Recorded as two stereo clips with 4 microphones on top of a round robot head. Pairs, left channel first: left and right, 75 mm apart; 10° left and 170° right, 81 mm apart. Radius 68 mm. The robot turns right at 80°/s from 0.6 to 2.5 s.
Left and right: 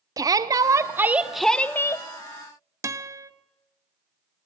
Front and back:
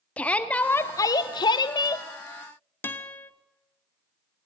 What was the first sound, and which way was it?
A shout, 65° right.